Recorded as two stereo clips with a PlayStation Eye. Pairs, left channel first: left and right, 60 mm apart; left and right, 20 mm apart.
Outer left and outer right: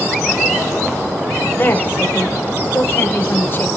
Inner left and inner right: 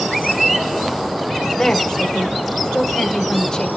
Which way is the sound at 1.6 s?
40° left (ahead or behind).